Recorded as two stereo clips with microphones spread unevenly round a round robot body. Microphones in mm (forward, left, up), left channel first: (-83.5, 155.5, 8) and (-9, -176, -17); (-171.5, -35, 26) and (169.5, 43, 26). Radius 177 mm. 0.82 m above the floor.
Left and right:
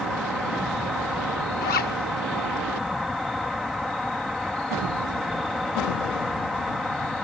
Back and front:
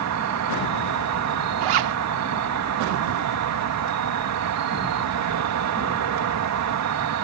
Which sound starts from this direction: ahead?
An insect, at 0.0 s.